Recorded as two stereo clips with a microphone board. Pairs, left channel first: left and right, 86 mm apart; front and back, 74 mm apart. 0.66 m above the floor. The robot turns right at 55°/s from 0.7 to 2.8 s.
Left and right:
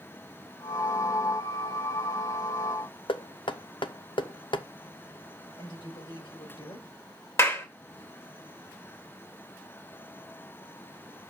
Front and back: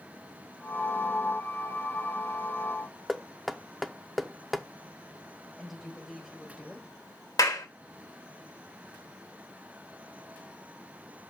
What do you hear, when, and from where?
3.1 s knocking: 90° left, 0.7 m
5.6 s a woman speaking: 90° left, 3.5 m
7.4 s a clap: 35° left, 2 m